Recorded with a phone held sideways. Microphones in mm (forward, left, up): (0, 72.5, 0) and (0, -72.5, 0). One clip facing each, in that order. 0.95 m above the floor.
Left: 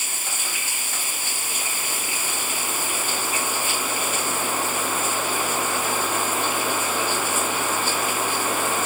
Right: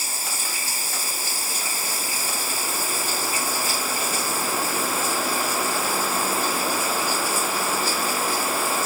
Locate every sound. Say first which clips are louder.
0.0 s running water: right 1 dB; 35° right (ahead or behind)